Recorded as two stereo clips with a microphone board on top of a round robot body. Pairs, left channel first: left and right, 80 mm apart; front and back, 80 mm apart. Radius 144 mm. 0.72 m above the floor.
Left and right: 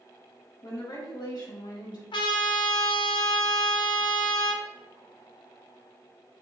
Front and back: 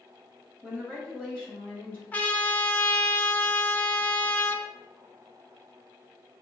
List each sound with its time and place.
0.6 s a woman speaking: 85° left, 1.7 m; by 2.0 s 75° left, 3.5 m
2.1 s a trumpet: 70° left, 0.6 m